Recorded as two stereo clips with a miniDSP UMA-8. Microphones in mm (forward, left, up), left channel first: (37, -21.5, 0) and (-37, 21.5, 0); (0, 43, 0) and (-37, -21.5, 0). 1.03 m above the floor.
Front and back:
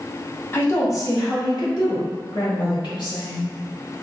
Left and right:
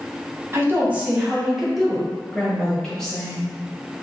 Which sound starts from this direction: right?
A woman speaking, at 0.5 s.